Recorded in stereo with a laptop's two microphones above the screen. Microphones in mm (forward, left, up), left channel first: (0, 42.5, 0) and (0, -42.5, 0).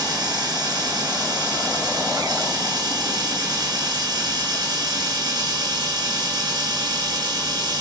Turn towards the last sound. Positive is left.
turn(degrees=-50)  # may be behind; listen again after turning